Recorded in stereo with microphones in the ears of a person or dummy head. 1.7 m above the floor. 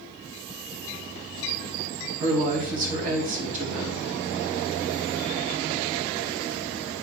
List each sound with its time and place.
2.2 s a woman speaking: 50° right (ahead or behind), 2.5 m